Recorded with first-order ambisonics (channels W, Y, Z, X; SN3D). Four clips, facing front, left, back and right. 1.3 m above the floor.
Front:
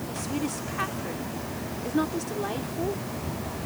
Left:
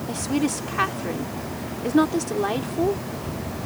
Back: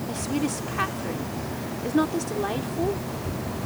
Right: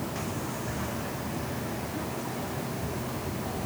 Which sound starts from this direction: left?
A woman speaking, at 0.1 s.